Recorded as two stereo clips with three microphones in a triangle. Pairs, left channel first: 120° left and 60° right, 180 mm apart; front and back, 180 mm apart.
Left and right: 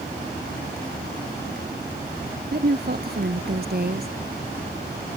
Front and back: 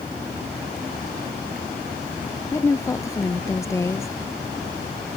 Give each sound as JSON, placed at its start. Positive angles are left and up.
{"t": 2.5, "sound": "a woman speaking", "azimuth_deg": -70}